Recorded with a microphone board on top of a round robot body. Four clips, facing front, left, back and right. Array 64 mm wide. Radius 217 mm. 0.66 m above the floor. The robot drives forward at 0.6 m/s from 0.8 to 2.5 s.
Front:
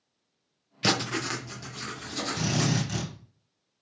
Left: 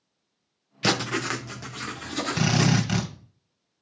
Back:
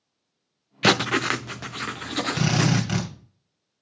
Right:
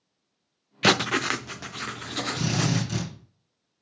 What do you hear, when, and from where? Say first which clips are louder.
0.8 s writing: right 3 dB, back 7 dB; 145° right, 0.8 m; by 2.9 s 170° right, 1.5 m
2.4 s a drill: left 5 dB, back 5 dB; 155° left, 2.5 m